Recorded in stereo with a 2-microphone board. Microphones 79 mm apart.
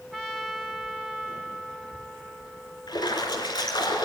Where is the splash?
65° left (ahead or behind), 3.5 m.